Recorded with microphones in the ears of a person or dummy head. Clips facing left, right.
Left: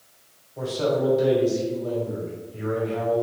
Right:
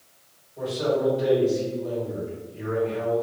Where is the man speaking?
65° left (ahead or behind), 1.6 m.